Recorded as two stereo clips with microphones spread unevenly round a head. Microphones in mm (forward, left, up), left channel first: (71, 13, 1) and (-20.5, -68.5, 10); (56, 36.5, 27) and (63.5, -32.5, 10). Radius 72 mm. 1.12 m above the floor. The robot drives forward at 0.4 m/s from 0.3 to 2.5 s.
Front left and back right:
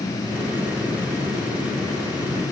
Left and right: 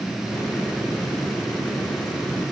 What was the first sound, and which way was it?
Only background noise.